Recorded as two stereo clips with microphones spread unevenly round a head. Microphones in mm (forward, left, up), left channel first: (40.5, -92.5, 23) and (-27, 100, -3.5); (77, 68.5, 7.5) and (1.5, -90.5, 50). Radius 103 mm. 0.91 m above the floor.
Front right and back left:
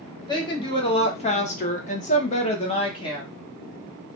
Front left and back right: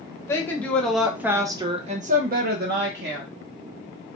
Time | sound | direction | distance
0.3 | a woman speaking | straight ahead | 1.1 m